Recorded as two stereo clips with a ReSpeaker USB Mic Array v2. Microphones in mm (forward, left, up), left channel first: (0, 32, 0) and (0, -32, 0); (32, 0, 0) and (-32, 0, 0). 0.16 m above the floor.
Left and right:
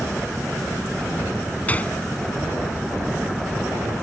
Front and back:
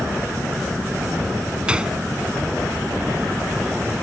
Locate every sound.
1.7 s a gunshot: 125° left